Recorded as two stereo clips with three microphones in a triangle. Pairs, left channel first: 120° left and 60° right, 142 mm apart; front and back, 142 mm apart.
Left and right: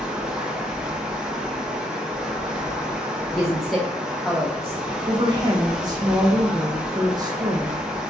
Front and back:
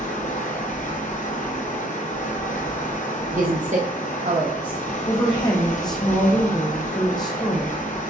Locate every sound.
0.0 s running water: 25° left, 0.7 m
3.3 s a woman speaking: 150° right, 0.6 m
5.1 s a woman speaking: 30° right, 0.6 m